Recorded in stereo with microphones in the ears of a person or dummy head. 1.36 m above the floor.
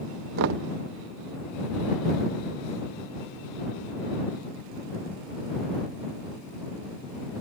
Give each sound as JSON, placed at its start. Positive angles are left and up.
{"t": 0.4, "sound": "knocking", "side_deg": -70}